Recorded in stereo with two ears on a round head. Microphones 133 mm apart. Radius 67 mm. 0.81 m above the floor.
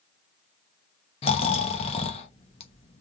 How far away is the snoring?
About 1.0 m.